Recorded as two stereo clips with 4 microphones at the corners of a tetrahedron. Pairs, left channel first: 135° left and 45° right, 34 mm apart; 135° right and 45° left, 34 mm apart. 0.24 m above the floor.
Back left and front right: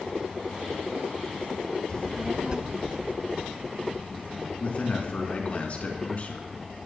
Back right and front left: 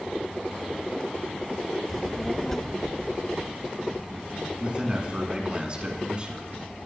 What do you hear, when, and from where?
1.9 s a child speaking: 135° left, 0.6 m; by 4.5 s 55° right, 2.5 m
4.6 s a man speaking: 100° left, 3 m